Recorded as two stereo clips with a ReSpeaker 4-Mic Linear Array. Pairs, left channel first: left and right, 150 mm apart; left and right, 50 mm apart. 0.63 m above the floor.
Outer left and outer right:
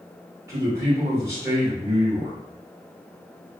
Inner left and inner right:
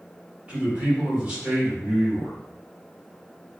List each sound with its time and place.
0.5 s a man speaking: 15° right (ahead or behind), 1.6 m